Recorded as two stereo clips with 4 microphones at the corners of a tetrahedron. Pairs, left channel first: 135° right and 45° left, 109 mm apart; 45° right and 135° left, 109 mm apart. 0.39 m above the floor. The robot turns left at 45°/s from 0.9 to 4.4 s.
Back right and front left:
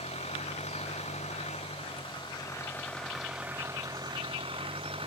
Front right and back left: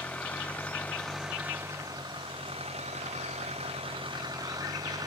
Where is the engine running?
125° right; by 5.1 s 80° left.